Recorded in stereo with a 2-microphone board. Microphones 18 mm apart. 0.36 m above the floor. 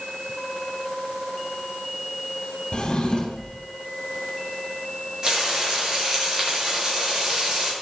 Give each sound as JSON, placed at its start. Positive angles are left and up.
{"t": 2.7, "sound": "a drawer", "side_deg": 50, "distance_m": 3.5}
{"t": 5.2, "sound": "frying", "side_deg": -40, "distance_m": 6.0}